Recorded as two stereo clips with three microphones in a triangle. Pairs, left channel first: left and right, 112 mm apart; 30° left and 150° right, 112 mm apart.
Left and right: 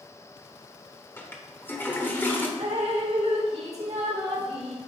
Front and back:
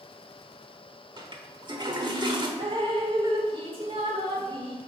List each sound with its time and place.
1.2 s a toilet flushing: 165° left, 1.1 m
2.6 s dripping: 110° right, 1.8 m